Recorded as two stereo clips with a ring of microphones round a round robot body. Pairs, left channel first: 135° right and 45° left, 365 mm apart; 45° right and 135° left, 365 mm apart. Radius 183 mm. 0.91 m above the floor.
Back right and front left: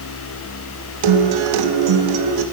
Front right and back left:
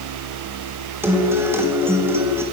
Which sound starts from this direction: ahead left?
A guitar, at 1.0 s.